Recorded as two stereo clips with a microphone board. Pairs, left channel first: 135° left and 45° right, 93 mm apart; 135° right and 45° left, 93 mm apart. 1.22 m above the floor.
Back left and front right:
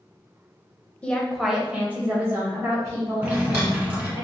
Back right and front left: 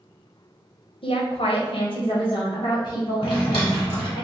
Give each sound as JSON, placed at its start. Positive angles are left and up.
{"t": 1.0, "sound": "a woman speaking", "azimuth_deg": -150, "distance_m": 0.9}
{"t": 3.2, "sound": "a drawer", "azimuth_deg": -110, "distance_m": 1.9}